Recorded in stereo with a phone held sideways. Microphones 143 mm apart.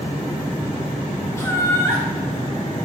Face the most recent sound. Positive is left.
turn(degrees=20)  # may be behind; listen again after turning